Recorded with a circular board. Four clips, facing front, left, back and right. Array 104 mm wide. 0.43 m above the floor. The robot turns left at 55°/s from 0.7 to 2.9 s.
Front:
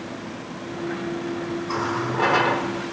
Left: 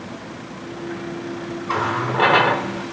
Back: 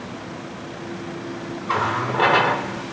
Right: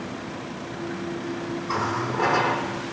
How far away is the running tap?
About 0.6 m.